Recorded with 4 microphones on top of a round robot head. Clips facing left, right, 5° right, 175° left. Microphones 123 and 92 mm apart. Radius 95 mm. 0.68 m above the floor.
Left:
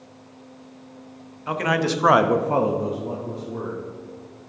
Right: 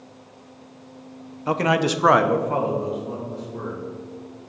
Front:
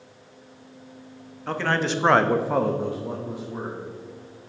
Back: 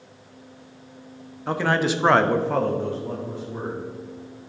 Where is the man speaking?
115° right, 0.9 m; by 3.8 s 70° left, 2.0 m.